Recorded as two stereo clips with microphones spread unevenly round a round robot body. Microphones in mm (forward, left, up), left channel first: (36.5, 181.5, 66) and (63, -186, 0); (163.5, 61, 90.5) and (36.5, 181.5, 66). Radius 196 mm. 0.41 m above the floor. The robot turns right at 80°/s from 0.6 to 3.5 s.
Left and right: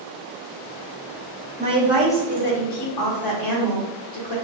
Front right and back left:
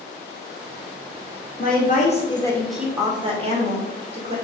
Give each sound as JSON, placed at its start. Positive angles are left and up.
{"t": 1.6, "sound": "a woman speaking", "azimuth_deg": -35, "distance_m": 1.3}